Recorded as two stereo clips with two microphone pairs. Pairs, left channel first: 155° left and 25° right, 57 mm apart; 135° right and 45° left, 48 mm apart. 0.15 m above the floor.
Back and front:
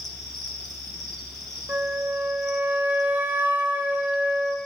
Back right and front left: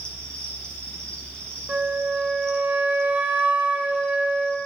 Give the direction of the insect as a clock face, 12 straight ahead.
4 o'clock.